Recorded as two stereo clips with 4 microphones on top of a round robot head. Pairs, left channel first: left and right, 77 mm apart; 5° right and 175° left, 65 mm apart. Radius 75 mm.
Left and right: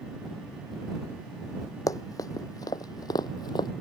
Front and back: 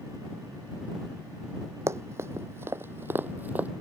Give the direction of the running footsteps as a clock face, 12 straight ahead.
8 o'clock.